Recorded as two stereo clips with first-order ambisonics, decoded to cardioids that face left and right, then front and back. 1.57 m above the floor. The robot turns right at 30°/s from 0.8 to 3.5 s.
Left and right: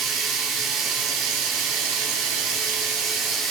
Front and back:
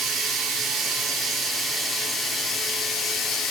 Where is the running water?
125° right, 1.8 m; by 3.5 s 45° right, 1.8 m.